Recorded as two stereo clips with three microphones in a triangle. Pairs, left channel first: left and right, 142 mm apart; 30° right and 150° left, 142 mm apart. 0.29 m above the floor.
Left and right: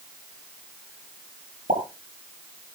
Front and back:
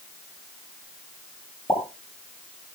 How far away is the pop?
About 8.5 m.